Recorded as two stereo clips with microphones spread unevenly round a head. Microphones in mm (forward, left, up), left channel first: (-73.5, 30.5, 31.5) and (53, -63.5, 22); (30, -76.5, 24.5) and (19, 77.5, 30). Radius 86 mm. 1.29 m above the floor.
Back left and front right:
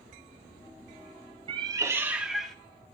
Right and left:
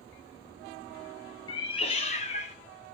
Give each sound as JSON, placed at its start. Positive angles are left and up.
{"t": 1.5, "sound": "a cat meowing", "azimuth_deg": -65, "distance_m": 0.6}